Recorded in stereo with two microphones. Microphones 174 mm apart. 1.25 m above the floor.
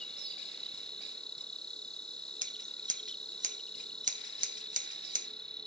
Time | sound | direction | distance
0.0 | an insect | 5° left (ahead or behind) | ?
2.4 | scissors | 50° right (ahead or behind) | ?